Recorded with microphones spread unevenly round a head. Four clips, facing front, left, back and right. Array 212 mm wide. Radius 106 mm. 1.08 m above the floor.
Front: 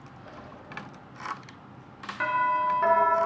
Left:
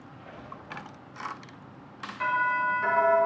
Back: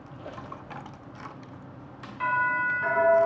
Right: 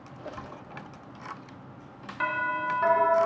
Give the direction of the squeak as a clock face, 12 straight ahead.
4 o'clock.